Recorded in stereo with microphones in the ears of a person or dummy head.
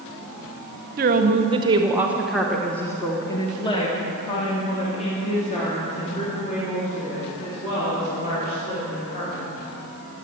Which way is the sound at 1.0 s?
45° right (ahead or behind).